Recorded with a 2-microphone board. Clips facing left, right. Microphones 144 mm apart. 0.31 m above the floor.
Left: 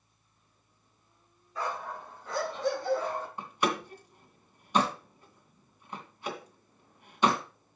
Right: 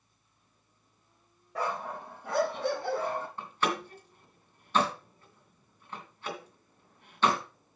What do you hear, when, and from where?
1.6 s a dog barking: 65° right (ahead or behind), 4 m; by 3.3 s 60° right (ahead or behind), 5 m
3.4 s a door slam: 15° left (ahead or behind), 2.5 m